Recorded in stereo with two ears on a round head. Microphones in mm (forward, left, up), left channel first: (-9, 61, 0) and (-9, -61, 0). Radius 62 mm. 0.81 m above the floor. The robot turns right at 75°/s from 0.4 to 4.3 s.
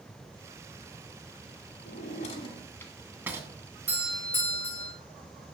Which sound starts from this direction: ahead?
A doorbell, at 3.9 s.